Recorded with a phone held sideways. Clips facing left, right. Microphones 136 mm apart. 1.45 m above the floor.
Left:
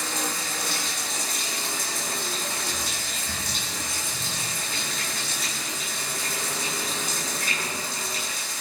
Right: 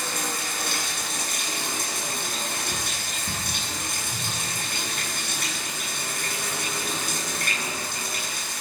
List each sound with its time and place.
0.0 s running water: 65° right (ahead or behind), 7.5 m